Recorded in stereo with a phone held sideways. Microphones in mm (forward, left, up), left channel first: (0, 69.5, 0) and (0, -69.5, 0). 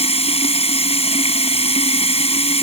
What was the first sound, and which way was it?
Running water, 45° left (ahead or behind).